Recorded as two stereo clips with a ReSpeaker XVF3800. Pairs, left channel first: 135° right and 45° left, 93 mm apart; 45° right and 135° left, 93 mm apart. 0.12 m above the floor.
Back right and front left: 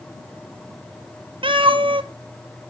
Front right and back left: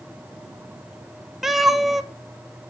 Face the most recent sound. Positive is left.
turn(degrees=50)